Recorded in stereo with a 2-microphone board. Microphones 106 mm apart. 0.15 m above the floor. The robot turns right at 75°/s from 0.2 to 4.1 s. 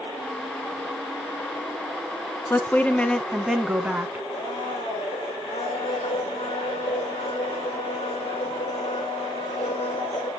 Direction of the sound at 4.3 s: 80° left.